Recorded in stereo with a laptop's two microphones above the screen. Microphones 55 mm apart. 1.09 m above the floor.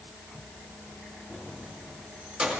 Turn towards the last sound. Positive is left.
turn(degrees=-20)  # may be behind; listen again after turning